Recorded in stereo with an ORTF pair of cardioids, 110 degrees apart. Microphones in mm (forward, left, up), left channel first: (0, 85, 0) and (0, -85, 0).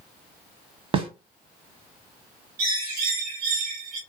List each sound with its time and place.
0.9 s a snare drum: 35° right, 1.0 m
2.6 s a bird: 70° right, 1.9 m